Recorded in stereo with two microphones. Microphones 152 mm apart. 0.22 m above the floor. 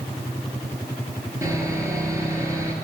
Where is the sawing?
20° right (ahead or behind), 4.5 m.